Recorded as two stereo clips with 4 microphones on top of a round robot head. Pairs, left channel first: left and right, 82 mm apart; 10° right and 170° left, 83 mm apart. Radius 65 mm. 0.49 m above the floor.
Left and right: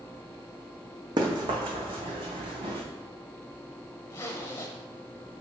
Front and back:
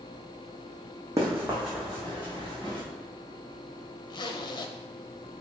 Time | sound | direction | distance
1.2 | running footsteps | 120° right | 1.6 m
4.1 | a zipper | 25° left | 0.7 m